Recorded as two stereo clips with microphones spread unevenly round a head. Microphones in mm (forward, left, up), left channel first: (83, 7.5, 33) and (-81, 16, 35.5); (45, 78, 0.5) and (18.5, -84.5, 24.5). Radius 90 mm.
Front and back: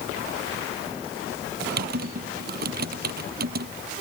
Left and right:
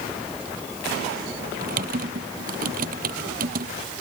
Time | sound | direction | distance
1.6 | typing on a keyboard | 145° right | ?